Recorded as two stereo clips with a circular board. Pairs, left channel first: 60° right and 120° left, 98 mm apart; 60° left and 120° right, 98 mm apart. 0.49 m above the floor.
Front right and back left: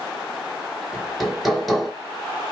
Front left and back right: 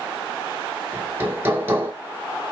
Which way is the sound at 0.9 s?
150° right.